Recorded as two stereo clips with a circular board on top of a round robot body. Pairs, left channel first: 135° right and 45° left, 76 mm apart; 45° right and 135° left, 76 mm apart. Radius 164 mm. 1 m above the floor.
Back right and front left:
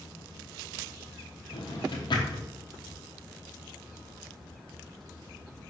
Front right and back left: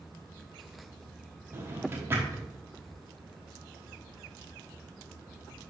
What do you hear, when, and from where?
1.5 s a drawer: 165° right, 1.2 m